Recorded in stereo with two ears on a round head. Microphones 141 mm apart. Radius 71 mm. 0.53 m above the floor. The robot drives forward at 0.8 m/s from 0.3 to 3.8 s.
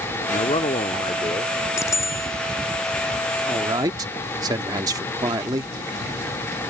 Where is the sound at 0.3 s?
40° left (ahead or behind); by 1.6 s 25° left (ahead or behind).